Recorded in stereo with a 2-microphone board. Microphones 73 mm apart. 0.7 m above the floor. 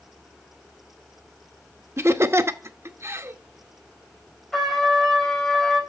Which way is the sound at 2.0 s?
35° right (ahead or behind).